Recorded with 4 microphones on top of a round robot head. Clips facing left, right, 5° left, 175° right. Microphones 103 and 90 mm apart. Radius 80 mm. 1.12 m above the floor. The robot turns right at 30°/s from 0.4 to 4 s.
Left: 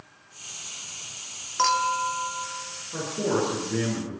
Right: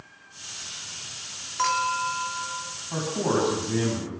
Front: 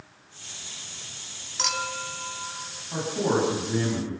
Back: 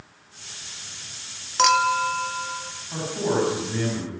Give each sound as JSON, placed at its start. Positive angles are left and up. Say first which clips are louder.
{"t": 1.6, "sound": "a clink", "louder": "left 2 dB, back 13 dB", "azimuth_deg": 160, "distance_m": 1.7}
{"t": 2.9, "sound": "a man speaking", "louder": "right 1 dB, even", "azimuth_deg": -80, "distance_m": 10.0}